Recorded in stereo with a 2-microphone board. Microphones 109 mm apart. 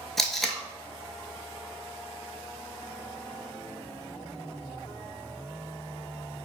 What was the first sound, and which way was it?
Tape being pulled, centre (ahead or behind).